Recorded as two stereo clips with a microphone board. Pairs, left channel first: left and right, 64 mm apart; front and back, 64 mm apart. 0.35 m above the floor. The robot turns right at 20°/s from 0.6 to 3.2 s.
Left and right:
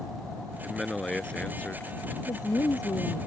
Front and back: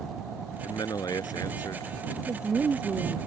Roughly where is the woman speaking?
Left.